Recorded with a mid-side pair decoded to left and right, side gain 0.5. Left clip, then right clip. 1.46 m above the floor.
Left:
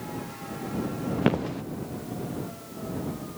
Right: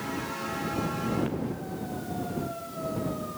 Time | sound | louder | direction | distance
1.2 | footsteps | left 5 dB | 65° left | ?